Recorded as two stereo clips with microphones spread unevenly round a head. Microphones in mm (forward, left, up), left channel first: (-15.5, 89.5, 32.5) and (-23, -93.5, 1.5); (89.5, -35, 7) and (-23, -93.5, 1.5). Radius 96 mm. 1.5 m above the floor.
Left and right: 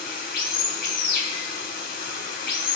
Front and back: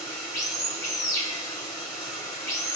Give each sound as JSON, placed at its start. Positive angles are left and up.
{"t": 0.0, "sound": "running water", "azimuth_deg": 90, "distance_m": 1.6}